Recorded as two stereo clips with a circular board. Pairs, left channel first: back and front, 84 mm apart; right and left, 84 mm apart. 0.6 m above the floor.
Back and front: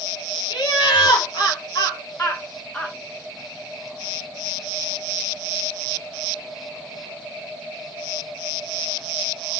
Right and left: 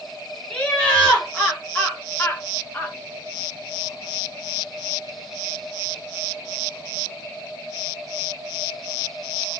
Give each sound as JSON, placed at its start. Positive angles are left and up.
{"t": 0.5, "sound": "laughter", "azimuth_deg": -165, "distance_m": 3.0}